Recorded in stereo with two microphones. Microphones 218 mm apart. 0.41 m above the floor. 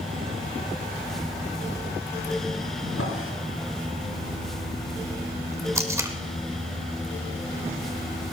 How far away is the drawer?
About 3.5 m.